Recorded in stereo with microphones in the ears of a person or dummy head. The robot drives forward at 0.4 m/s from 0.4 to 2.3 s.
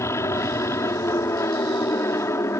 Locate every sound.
0.0 s an aircraft: 15° left (ahead or behind)